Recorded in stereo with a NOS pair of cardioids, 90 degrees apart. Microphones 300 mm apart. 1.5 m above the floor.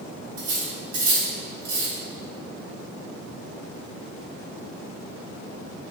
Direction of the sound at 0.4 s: 55° right.